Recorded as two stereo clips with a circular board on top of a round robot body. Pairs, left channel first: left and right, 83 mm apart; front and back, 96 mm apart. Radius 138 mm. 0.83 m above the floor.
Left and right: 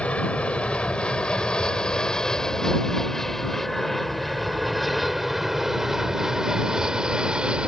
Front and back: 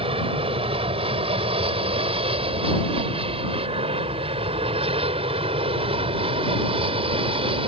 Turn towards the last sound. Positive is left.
turn(degrees=-170)